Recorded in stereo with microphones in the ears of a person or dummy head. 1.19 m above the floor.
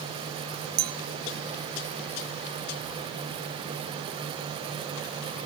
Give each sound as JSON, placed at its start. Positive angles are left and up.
{"t": 0.8, "sound": "a clink", "side_deg": -45, "distance_m": 0.6}